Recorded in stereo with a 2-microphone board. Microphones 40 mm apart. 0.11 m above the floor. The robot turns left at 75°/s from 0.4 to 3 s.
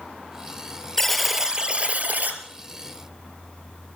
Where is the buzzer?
15° left, 2.5 m; by 2.4 s 95° right, 2.5 m.